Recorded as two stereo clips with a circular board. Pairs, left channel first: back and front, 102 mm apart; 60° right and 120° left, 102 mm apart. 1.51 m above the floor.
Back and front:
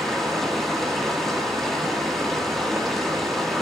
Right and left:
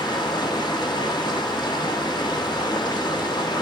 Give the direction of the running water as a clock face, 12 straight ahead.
3 o'clock.